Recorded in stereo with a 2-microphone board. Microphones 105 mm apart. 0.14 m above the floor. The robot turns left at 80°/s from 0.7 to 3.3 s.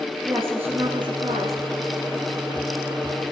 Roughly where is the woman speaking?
Ahead.